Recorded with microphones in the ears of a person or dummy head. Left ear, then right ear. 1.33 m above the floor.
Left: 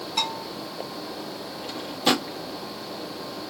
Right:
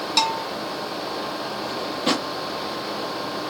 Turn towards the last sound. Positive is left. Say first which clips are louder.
# left 1 dB
turn(degrees=15)  # may be behind; listen again after turning